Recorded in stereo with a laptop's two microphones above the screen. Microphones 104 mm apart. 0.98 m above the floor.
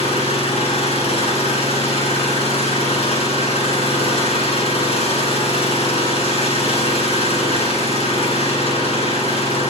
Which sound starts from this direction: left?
An engine running, at 0.0 s.